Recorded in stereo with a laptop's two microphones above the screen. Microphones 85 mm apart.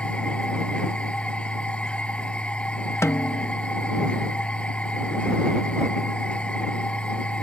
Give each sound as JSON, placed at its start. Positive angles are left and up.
{"t": 0.0, "sound": "a machine running", "side_deg": 10}
{"t": 3.0, "sound": "a snare drum", "side_deg": 35}